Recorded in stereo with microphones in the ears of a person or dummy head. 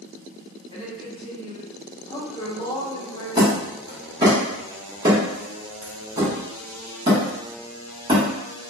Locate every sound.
0.7 s a woman speaking: 25° left (ahead or behind), 0.6 m
3.4 s hammering: 25° right (ahead or behind), 0.9 m